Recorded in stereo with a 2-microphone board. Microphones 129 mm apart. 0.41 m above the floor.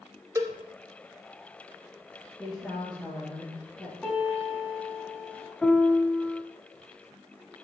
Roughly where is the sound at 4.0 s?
Centre.